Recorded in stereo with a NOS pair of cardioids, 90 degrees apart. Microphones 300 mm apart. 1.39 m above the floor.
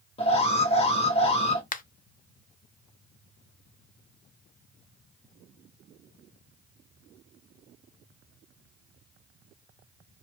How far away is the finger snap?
About 0.6 m.